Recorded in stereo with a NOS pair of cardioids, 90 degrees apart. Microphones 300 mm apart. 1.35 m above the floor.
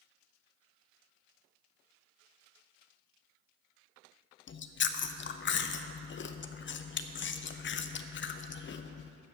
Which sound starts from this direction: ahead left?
Chewing, at 4.5 s.